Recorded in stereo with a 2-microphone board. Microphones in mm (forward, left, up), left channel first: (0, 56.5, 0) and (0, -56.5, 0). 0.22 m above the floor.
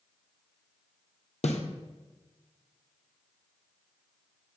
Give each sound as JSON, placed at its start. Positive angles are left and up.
{"t": 1.4, "sound": "a snare drum", "side_deg": 85, "distance_m": 2.0}